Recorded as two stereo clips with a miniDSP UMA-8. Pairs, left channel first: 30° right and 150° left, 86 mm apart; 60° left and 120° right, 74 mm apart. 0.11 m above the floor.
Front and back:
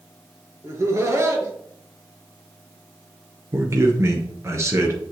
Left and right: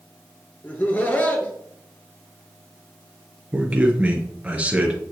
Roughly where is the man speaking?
Behind.